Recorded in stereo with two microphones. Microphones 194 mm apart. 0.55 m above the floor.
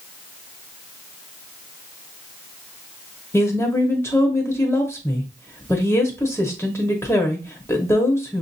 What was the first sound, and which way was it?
A woman speaking, 10° left (ahead or behind).